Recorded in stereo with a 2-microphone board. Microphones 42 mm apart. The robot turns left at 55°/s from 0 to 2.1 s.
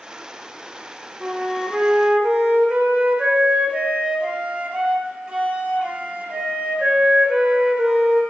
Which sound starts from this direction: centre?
A flute, at 1.2 s.